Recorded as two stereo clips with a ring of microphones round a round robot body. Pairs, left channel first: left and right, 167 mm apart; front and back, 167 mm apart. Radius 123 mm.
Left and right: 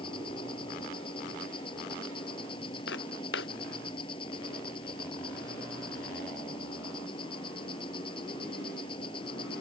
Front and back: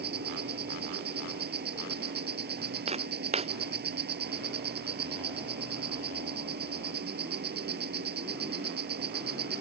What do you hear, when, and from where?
0.0 s an insect: 160° left
2.9 s footsteps: 130° left